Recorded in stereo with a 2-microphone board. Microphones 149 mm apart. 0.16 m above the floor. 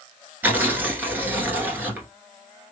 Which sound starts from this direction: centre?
Tearing paper, at 0.4 s.